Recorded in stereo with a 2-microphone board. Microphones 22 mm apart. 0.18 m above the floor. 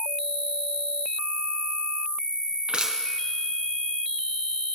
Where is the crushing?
45° right (ahead or behind), 1.8 m.